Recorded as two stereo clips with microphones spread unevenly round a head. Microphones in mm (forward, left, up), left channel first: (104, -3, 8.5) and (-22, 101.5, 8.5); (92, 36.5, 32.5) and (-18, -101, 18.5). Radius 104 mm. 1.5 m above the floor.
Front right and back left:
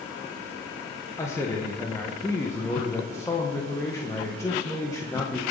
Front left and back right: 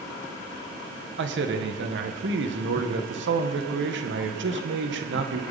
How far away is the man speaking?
About 1.6 m.